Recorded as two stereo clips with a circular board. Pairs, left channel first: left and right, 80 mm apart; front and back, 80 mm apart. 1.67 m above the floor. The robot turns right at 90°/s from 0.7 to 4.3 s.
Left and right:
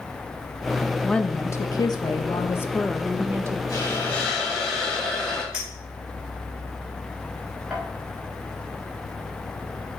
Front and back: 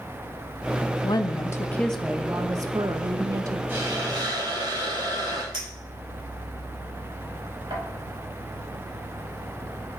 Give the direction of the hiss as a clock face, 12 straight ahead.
8 o'clock.